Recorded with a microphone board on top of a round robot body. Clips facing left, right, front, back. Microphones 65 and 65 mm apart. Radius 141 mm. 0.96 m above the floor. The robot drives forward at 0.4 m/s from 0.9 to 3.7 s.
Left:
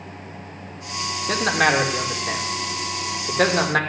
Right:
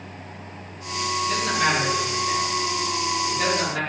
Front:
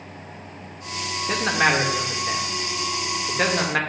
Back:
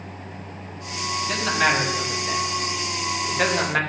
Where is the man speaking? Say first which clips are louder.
Left 5 dB, front 1 dB; 65° left, 2 m; by 3.8 s 90° left, 1.9 m.